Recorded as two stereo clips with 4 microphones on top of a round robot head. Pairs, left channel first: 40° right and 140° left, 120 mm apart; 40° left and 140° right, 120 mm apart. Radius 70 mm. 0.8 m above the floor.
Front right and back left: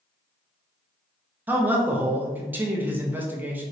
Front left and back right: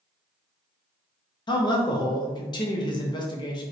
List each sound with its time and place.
1.5 s a man speaking: 70° left, 0.6 m